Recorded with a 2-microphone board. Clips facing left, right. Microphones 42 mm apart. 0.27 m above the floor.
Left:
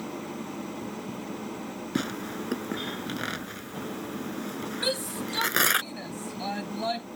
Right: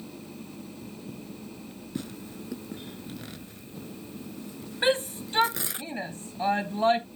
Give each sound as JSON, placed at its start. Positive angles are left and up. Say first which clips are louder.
{"t": 0.0, "sound": "an engine running", "louder": "left 7 dB", "side_deg": 65}
{"t": 1.9, "sound": "tearing paper", "louder": "left 7 dB", "side_deg": 70}
{"t": 4.8, "sound": "a shout", "louder": "right 7 dB", "side_deg": -40}